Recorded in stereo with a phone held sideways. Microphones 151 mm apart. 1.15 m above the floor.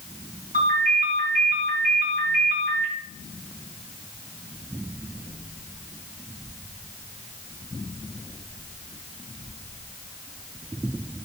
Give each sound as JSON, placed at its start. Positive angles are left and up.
{"t": 0.5, "sound": "a ringtone", "side_deg": -65, "distance_m": 5.0}